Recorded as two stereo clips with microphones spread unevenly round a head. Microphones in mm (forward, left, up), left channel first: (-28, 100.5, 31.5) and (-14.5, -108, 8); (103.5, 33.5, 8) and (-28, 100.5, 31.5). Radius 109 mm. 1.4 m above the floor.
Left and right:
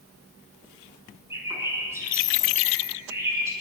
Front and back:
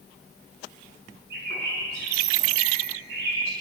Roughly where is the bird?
Behind.